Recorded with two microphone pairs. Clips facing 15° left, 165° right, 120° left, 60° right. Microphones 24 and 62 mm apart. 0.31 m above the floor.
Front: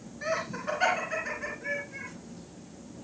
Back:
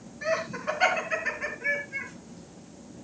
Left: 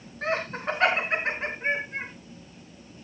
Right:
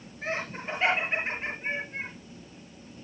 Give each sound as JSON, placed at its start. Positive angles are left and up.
{"t": 0.2, "sound": "laughter", "azimuth_deg": 110, "distance_m": 3.5}